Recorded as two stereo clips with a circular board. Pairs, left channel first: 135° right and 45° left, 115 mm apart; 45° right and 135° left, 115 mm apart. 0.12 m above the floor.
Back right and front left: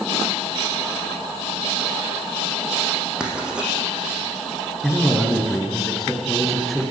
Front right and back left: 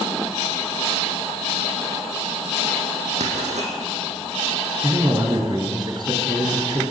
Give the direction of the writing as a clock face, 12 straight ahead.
8 o'clock.